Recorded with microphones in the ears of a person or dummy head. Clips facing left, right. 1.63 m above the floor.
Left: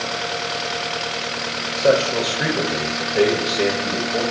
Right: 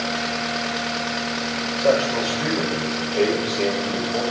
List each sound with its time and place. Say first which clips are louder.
1.8 s a man speaking: left 2 dB; 30° left (ahead or behind), 5 m; by 4.2 s 25° left (ahead or behind), 6.5 m